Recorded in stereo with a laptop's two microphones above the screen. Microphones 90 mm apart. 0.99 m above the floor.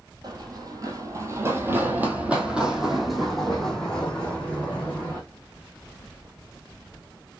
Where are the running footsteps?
50° right (ahead or behind), 1.4 m; by 5.2 s 15° left (ahead or behind), 2.5 m.